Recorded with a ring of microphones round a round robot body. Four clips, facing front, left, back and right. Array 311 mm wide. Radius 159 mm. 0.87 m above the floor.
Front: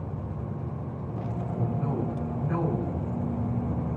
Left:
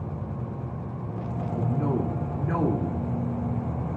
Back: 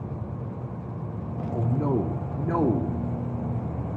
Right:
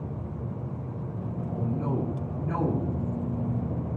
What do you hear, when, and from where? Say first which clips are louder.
1.5 s a man speaking: left 3 dB, back 6 dB; 165° left, 1.7 m